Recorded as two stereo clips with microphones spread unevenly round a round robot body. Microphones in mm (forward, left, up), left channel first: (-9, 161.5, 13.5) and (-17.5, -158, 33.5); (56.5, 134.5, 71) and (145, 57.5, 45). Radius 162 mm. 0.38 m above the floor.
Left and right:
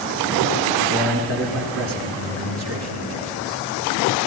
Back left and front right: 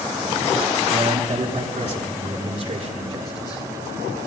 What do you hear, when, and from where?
0.9 s a man speaking: 35° right, 4.5 m; by 3.6 s 45° right, 7 m